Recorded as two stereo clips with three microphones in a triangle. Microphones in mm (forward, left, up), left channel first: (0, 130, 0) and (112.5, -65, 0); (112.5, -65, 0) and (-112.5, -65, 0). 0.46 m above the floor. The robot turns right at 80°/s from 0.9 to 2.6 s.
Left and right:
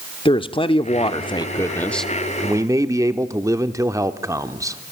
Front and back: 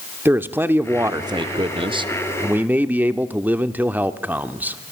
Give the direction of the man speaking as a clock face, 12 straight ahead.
8 o'clock.